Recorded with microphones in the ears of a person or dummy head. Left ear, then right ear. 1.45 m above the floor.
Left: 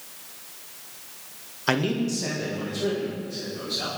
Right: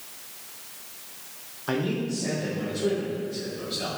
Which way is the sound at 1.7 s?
55° left (ahead or behind).